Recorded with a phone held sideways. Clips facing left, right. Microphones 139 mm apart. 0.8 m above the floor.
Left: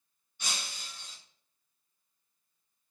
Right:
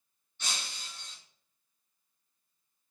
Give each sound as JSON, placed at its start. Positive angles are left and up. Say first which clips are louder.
{"t": 0.4, "sound": "breaking glass", "louder": "even", "side_deg": 15, "distance_m": 1.7}